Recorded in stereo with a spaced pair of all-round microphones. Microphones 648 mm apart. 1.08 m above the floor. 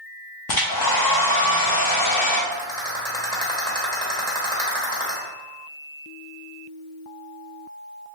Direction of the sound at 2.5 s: 5° left (ahead or behind).